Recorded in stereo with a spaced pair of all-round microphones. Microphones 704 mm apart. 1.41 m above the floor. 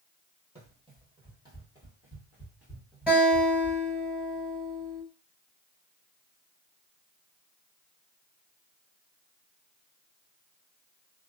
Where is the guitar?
Centre (ahead or behind), 1.5 m.